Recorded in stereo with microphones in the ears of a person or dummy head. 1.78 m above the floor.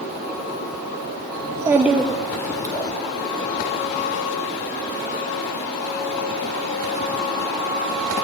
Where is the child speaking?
30° right (ahead or behind), 0.8 m; by 2.9 s 20° left (ahead or behind), 1.9 m.